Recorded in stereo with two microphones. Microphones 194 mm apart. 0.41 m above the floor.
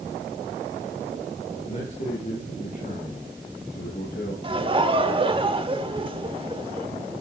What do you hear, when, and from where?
1.7 s a man speaking: 35° left (ahead or behind), 6.5 m; by 4.3 s 55° left (ahead or behind), 8 m
4.4 s laughter: 25° right (ahead or behind), 1.2 m